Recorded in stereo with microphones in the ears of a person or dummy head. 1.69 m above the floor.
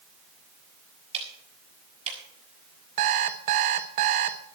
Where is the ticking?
30° right (ahead or behind), 6 m.